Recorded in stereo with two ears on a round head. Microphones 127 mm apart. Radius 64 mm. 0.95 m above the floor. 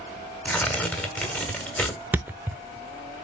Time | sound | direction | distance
0.5 | tearing paper | 10° left (ahead or behind) | 1.7 m
2.1 | a thud | 10° right (ahead or behind) | 0.6 m